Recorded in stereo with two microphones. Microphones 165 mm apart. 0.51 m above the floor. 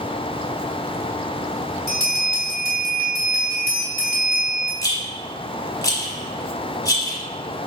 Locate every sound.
1.9 s a bell: 20° right (ahead or behind), 1.9 m
4.8 s a rattle: 25° left (ahead or behind), 1.0 m